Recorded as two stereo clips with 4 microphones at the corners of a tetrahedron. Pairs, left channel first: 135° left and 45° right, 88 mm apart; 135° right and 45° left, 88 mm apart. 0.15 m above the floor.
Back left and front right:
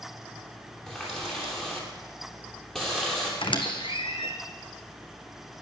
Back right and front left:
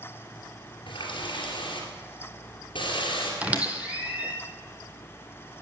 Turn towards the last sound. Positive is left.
turn(degrees=120)